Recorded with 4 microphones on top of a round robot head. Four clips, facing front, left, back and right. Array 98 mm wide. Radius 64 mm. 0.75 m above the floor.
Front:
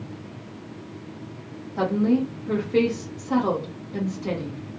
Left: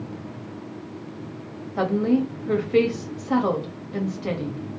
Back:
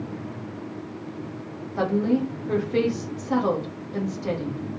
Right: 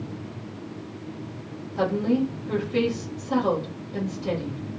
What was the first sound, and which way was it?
A woman speaking, 115° left.